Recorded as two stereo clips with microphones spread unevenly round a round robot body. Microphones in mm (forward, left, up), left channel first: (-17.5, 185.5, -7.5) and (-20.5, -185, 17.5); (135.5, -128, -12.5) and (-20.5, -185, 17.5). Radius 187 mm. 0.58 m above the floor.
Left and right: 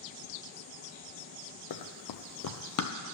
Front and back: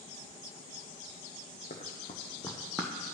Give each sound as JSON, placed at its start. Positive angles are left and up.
{"t": 1.7, "sound": "running footsteps", "azimuth_deg": 70, "distance_m": 0.9}